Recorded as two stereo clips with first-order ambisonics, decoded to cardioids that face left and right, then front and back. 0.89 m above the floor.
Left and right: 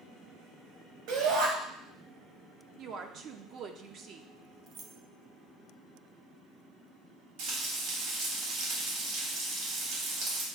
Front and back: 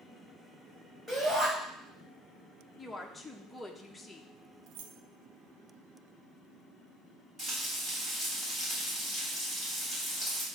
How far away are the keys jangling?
About 0.6 m.